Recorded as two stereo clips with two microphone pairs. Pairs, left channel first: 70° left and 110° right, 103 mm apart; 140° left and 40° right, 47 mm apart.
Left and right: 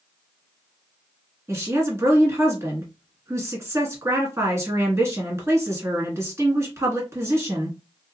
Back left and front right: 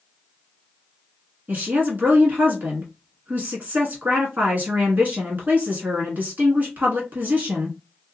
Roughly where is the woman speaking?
Ahead right.